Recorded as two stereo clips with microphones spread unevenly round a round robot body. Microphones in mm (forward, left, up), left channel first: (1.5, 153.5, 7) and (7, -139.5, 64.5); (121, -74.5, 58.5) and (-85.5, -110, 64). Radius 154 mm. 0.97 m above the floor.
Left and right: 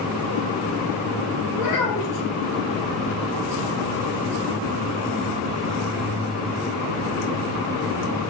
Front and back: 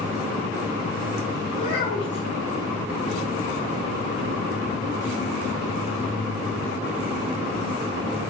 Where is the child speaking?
80° left, 1.9 m.